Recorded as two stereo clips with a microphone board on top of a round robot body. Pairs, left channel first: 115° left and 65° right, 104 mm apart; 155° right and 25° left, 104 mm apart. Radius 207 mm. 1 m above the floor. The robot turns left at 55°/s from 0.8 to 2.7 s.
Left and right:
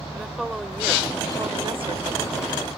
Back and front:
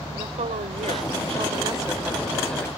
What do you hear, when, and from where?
0.1 s a woman speaking: 20° left; by 2.7 s 85° right